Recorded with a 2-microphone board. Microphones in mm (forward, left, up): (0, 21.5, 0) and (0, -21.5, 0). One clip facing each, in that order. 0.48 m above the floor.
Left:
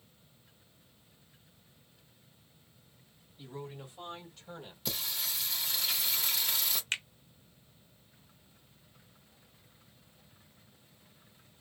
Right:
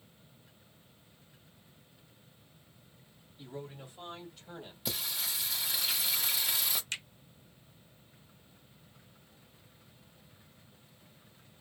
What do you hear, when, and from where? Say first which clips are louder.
3.4 s a man speaking: even; 5° right (ahead or behind), 3 m; by 4.8 s 10° right (ahead or behind), 1.8 m
4.8 s singing: even; 5° right (ahead or behind), 1.1 m
6.9 s a finger snap: left 4 dB; 40° left (ahead or behind), 1.1 m